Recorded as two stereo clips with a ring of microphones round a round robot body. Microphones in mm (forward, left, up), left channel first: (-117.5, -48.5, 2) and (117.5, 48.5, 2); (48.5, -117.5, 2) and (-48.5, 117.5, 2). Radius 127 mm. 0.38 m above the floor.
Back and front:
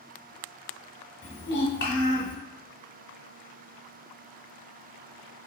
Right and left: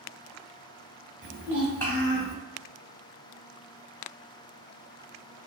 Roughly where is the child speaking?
Behind.